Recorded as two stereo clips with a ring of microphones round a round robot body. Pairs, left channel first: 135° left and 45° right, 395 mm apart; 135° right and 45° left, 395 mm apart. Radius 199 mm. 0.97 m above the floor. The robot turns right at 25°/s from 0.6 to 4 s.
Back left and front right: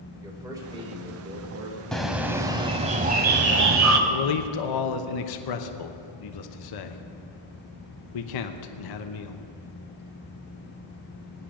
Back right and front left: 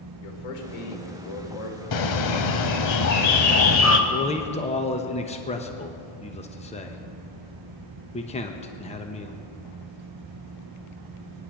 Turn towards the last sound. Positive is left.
turn(degrees=150)